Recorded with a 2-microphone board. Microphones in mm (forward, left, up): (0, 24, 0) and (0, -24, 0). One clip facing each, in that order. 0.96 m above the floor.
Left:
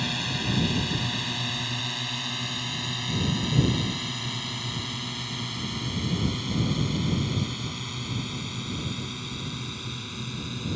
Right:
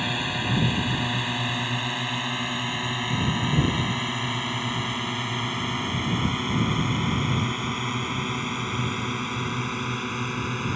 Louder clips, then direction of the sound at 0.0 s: Right 3 dB; 20° right (ahead or behind).